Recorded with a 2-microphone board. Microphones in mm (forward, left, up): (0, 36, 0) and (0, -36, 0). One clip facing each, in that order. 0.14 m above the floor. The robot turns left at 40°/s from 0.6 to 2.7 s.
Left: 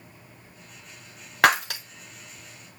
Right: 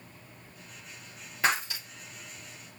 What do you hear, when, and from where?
1.4 s breaking glass: 80° left, 1.2 m; by 1.8 s 65° left (ahead or behind), 1.2 m